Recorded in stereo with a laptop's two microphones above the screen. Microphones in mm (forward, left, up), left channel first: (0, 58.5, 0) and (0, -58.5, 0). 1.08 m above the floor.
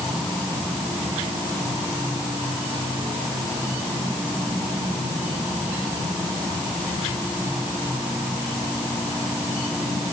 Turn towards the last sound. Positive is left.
No sound to turn to.